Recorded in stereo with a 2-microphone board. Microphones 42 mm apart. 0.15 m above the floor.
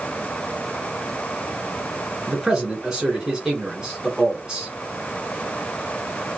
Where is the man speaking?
15° right (ahead or behind), 1.6 m.